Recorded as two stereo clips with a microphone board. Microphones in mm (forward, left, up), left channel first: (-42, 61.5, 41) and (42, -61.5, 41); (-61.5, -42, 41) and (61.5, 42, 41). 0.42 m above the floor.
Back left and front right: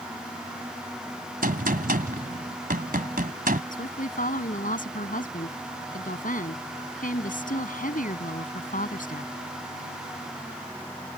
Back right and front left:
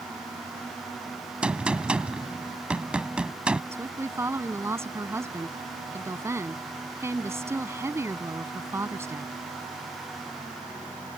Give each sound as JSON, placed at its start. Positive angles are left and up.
{"t": 1.4, "sound": "a gunshot", "azimuth_deg": -50}
{"t": 3.7, "sound": "a woman speaking", "azimuth_deg": 105}